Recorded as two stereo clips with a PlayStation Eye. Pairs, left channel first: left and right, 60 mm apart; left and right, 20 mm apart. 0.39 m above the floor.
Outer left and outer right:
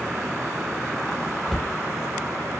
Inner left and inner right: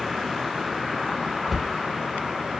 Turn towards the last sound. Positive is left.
turn(degrees=10)  # may be behind; listen again after turning